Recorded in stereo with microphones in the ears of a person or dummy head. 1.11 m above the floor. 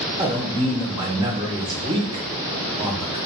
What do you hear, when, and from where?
0.2 s a man speaking: 20° right (ahead or behind), 0.7 m